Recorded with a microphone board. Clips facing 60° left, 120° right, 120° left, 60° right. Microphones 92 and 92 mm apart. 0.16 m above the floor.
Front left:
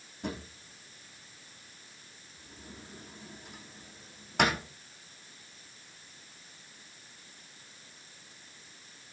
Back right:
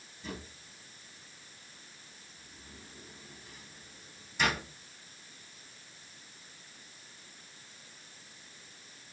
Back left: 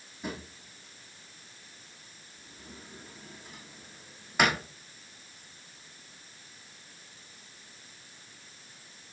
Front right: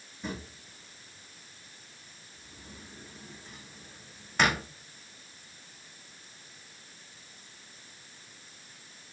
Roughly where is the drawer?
Ahead left.